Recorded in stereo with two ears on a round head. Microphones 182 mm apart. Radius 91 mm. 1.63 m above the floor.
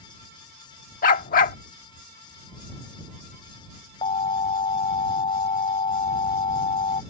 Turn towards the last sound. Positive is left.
turn(degrees=25)  # may be behind; listen again after turning